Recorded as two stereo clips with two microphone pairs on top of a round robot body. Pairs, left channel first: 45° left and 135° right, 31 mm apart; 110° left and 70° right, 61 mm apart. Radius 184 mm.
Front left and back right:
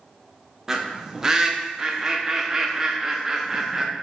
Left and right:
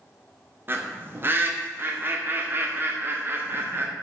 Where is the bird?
85° right, 1.2 m.